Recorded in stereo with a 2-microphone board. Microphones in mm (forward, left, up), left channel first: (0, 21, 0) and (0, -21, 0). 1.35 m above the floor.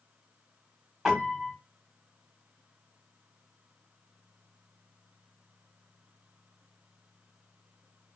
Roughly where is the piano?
Centre.